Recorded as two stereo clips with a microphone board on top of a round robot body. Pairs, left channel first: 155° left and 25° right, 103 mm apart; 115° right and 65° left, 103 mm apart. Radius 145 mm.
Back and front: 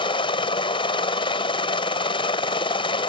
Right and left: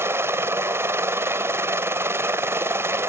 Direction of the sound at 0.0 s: 130° left.